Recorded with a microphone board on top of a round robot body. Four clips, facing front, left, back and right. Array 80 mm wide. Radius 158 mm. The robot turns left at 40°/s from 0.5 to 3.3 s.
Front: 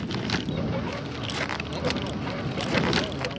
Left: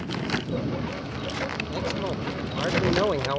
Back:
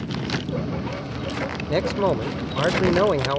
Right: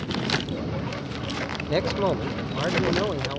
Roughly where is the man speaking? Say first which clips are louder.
Right 10 dB, back 13 dB; behind right.